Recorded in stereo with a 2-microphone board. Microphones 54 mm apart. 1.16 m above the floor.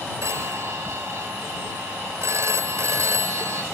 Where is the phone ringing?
75° right (ahead or behind).